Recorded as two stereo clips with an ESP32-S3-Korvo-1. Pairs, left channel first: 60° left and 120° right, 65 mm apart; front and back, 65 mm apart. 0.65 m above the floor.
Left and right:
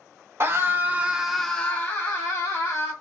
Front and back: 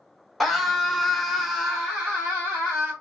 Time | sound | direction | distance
0.4 | a scream | 90° right | 0.8 m